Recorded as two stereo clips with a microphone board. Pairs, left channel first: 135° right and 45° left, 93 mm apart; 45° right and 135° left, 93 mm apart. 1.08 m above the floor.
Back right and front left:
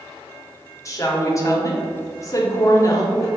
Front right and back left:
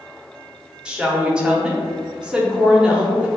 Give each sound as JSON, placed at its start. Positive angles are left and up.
{"t": 0.8, "sound": "a woman speaking", "azimuth_deg": -150, "distance_m": 0.7}